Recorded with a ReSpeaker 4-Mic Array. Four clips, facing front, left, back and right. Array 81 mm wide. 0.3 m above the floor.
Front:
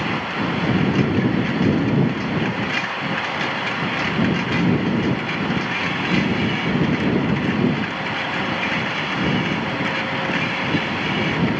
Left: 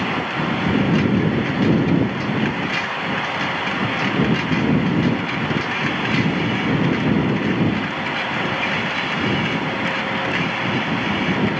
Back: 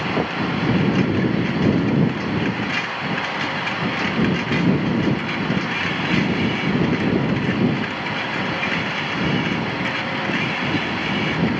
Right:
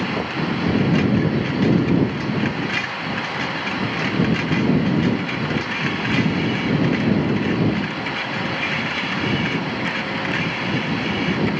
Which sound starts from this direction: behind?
Knocking, at 0.2 s.